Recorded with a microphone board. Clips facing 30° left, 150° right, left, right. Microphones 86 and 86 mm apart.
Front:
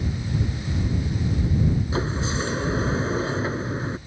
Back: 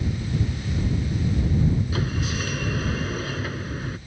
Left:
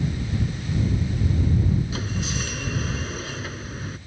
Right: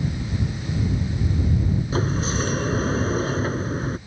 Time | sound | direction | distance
1.9 | a sliding door | 35° right | ?